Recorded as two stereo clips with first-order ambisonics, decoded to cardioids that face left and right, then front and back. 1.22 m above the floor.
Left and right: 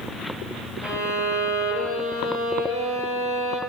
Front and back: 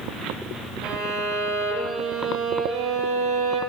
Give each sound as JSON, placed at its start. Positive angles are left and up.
{"t": 0.8, "sound": "a violin", "azimuth_deg": -145, "distance_m": 9.0}